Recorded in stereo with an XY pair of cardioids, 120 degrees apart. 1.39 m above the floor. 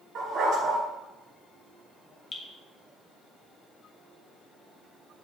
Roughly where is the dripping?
Ahead left.